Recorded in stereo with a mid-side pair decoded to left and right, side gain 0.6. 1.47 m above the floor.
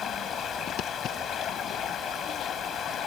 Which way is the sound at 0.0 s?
45° left.